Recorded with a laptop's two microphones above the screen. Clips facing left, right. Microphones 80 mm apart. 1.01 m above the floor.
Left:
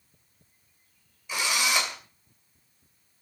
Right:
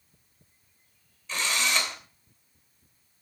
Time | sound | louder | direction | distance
1.3 | a drill | left 1 dB | 10° left (ahead or behind) | 2.5 m